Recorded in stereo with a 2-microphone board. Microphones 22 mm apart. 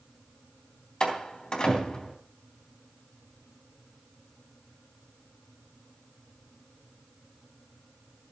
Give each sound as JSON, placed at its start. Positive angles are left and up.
{"t": 1.0, "sound": "a door slam", "side_deg": 40, "distance_m": 3.5}